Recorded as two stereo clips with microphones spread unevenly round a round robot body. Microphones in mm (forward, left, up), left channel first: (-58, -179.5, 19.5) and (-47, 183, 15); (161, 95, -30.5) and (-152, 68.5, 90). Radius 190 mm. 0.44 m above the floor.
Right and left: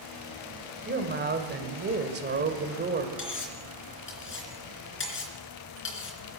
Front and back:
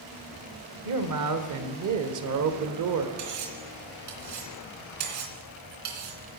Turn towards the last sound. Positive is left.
turn(degrees=-150)